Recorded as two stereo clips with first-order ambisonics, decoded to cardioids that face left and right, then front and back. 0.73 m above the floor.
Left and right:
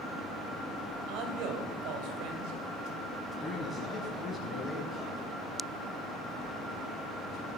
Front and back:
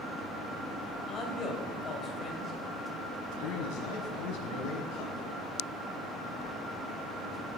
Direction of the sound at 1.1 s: 65° right.